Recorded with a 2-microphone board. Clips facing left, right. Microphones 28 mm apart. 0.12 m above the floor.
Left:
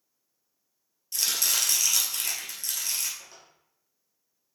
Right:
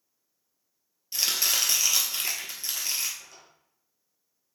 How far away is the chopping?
About 1.8 m.